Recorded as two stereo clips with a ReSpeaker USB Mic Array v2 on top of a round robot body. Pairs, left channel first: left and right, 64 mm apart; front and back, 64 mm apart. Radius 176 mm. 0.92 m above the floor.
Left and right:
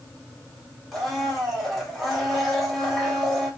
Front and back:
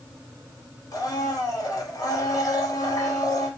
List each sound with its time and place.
0.9 s a blender: straight ahead, 1.6 m